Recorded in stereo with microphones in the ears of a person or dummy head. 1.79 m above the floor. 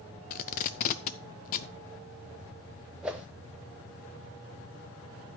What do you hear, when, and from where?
0.3 s tape being pulled: 40° left (ahead or behind), 0.5 m
3.0 s a whoosh: 10° right (ahead or behind), 0.9 m